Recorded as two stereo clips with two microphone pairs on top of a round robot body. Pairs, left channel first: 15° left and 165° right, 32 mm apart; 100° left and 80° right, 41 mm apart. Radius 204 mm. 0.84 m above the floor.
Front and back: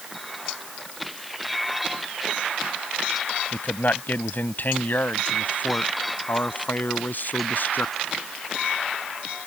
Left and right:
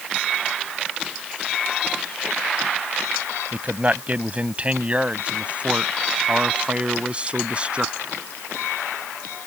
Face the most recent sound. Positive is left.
turn(degrees=-15)